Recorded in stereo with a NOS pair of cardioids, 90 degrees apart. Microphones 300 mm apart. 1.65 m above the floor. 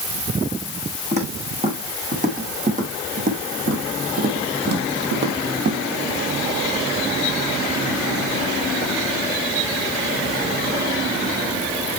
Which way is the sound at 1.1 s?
25° right.